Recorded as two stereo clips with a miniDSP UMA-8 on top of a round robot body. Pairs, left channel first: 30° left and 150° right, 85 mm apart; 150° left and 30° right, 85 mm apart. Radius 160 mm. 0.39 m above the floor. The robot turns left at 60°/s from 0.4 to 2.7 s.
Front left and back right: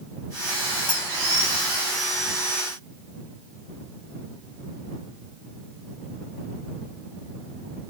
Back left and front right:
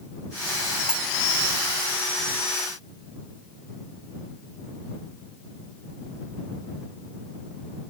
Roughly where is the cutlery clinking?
Ahead left.